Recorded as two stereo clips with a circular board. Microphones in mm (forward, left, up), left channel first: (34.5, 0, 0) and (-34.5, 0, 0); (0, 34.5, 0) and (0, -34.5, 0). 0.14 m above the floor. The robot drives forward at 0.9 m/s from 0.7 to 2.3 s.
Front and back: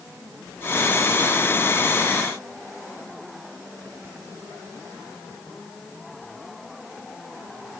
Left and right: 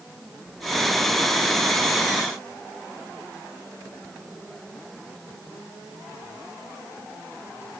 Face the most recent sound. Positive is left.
No sound to turn to.